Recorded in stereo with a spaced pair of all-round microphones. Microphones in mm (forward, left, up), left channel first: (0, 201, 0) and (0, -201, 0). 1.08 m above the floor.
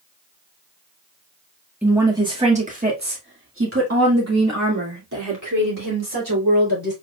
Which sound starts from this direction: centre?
A woman speaking, at 1.8 s.